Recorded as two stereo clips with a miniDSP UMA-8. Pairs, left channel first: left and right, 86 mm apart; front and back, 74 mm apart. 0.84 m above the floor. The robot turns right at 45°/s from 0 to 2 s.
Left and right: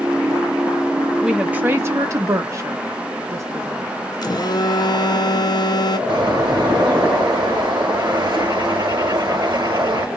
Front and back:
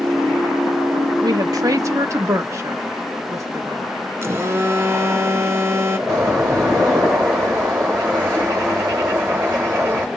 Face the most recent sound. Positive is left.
turn(degrees=-125)